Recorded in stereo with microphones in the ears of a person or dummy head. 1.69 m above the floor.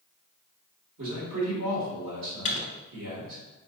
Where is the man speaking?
75° right (ahead or behind), 1.9 m.